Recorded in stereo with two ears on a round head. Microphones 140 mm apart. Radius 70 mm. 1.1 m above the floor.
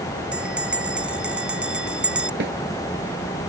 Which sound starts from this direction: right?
A snare drum, at 2.4 s.